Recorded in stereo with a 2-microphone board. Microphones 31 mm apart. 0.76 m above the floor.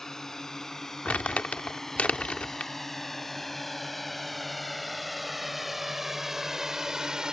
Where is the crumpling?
45° left (ahead or behind).